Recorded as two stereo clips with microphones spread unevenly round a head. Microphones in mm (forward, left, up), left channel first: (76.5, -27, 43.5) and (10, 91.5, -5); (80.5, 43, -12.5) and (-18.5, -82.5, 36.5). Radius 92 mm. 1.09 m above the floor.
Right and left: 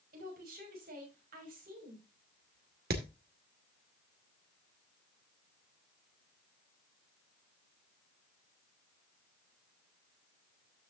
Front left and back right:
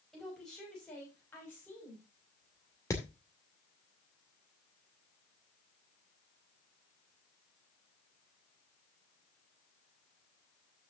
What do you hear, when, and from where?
0.1 s a woman speaking: 140° left, 6 m; by 2.8 s 125° left, 6 m
2.9 s hammering: 130° left, 2 m